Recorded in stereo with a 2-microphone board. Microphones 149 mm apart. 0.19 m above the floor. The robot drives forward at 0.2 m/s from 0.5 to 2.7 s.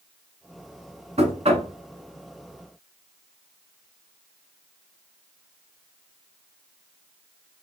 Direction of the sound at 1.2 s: 45° right (ahead or behind).